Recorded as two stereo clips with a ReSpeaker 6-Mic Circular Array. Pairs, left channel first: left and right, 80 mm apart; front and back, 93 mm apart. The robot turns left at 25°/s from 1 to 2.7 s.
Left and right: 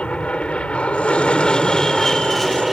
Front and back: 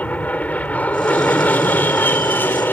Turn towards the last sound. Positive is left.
turn(degrees=0)